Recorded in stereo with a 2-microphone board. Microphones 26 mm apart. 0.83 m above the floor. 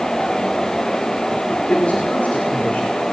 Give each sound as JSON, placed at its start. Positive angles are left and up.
{"t": 1.7, "sound": "a man speaking", "side_deg": 70, "distance_m": 2.5}